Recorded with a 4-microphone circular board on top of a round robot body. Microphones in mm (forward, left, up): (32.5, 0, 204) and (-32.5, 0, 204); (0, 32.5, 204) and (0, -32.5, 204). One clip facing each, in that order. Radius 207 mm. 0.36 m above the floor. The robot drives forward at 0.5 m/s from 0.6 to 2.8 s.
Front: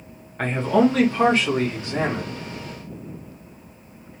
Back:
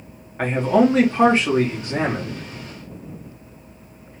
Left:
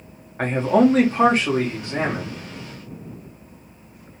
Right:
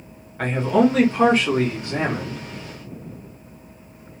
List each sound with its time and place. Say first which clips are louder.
0.4 s a man speaking: back 2 dB, left 1 dB; 105° left, 0.9 m; by 2.4 s 155° left, 1.3 m